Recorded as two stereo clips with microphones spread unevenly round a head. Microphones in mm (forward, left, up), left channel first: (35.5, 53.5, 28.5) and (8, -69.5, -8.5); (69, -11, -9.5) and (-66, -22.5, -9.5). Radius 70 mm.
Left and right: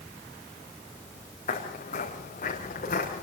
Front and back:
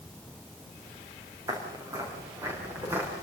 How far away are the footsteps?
About 6.5 m.